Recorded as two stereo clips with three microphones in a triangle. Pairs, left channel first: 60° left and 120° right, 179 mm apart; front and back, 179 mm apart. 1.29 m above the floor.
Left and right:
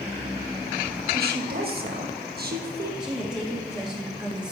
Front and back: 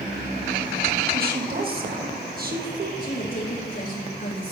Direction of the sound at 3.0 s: 35° right.